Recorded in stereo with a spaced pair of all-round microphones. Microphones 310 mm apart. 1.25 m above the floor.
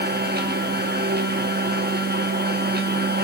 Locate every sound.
0.0 s a machine running: 35° right (ahead or behind), 0.8 m